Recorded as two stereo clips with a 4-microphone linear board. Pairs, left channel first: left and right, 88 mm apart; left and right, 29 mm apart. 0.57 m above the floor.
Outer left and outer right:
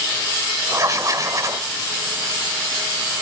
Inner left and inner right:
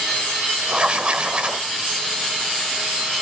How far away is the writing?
About 1.6 m.